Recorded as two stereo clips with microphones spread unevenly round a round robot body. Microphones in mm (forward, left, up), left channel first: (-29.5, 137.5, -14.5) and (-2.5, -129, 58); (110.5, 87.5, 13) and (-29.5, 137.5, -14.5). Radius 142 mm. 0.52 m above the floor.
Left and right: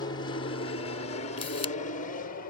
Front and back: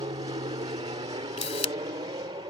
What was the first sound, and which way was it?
An aircraft, 135° left.